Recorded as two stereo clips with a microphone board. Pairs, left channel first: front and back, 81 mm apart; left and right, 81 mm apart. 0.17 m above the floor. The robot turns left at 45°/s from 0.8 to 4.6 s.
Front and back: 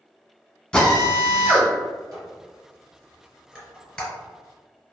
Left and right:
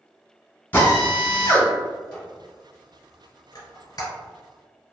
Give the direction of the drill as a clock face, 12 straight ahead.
10 o'clock.